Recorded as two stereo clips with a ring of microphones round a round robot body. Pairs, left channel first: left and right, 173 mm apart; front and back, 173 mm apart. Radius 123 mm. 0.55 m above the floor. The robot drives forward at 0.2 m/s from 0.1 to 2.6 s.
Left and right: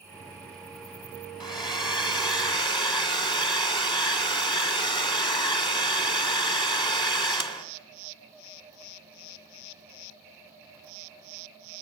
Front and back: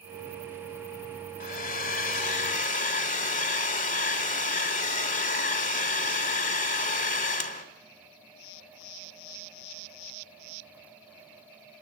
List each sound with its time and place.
1.4 s a hair dryer: 30° left, 2.5 m